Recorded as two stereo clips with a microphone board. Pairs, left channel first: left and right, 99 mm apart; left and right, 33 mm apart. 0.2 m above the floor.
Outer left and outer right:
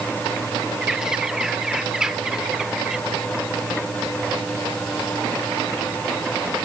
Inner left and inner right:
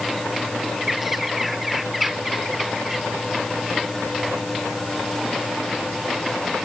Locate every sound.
0.8 s a bird: 5° right (ahead or behind)